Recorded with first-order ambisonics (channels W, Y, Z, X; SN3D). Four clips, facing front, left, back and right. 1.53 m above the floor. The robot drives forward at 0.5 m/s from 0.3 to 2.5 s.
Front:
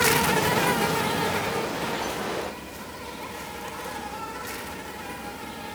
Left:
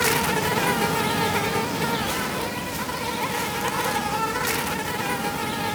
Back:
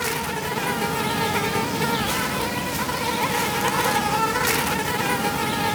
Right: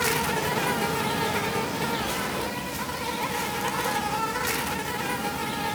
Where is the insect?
40° left, 0.9 m; by 5.8 s 165° left, 1.2 m.